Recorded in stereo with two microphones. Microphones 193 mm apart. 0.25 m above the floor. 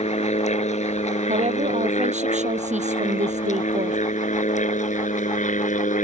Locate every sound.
0.0 s an aircraft: 35° left (ahead or behind); by 6.0 s 40° left (ahead or behind)
1.3 s a woman speaking: 35° right (ahead or behind)